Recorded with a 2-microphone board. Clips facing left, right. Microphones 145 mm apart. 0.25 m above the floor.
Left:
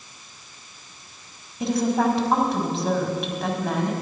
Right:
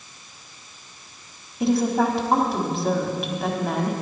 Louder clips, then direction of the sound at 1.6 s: Right 1 dB; centre (ahead or behind).